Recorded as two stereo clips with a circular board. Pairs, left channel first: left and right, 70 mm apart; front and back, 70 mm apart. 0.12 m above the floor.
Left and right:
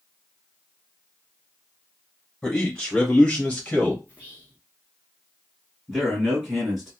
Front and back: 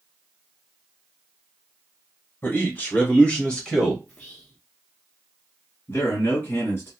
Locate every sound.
2.4 s a man speaking: 15° left, 1.8 m; by 4.0 s 75° left, 1.6 m
4.1 s whispering: 45° right, 1.5 m
5.9 s a man speaking: 5° right, 1.9 m